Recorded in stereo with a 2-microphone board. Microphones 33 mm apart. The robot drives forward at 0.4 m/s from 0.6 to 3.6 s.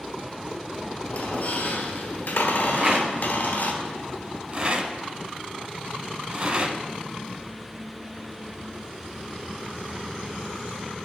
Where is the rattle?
35° right (ahead or behind), 1.0 m; by 6.8 s 45° right (ahead or behind), 0.8 m.